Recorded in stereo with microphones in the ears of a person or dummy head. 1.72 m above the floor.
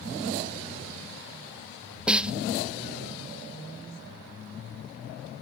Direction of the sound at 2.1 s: 5° right (ahead or behind).